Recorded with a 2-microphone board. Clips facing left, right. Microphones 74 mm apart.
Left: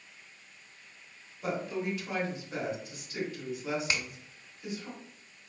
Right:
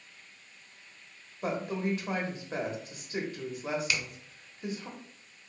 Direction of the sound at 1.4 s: 45° right (ahead or behind).